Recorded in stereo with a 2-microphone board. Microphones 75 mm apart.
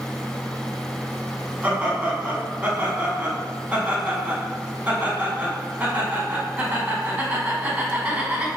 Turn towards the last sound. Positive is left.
turn(degrees=-20)  # may be behind; listen again after turning